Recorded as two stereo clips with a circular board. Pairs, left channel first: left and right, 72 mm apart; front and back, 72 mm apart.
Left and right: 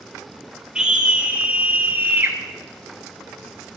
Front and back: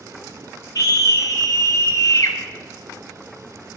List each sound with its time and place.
0.8 s a scream: 15° right, 2.5 m; by 2.4 s 35° right, 3 m